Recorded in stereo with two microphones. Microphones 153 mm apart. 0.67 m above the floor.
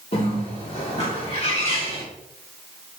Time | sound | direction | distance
0.1 | a bird | 40° left (ahead or behind) | 1.4 m